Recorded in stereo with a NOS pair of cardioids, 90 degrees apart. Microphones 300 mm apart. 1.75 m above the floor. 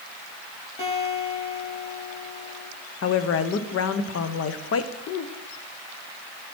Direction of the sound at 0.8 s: 20° left.